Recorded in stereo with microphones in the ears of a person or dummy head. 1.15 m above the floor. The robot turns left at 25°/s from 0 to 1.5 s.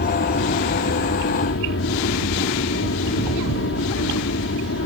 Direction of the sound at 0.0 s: 125° left.